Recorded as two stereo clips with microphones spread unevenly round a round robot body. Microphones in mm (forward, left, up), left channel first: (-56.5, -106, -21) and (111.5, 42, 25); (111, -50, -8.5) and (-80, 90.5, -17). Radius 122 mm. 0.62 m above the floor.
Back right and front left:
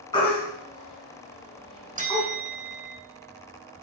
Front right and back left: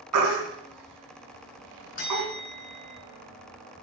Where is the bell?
20° right, 3.5 m.